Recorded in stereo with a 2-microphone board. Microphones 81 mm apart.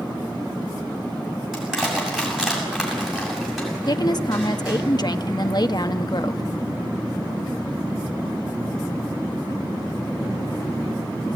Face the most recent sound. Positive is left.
turn(degrees=50)  # may be behind; listen again after turning